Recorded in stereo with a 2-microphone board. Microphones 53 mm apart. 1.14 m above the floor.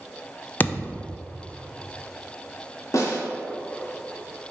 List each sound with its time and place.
0.6 s a thud: 35° left (ahead or behind), 0.6 m
2.9 s a snare drum: 70° left (ahead or behind), 2.5 m